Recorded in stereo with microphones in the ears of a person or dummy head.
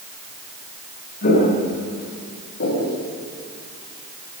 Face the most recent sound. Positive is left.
turn(degrees=60)  # may be behind; listen again after turning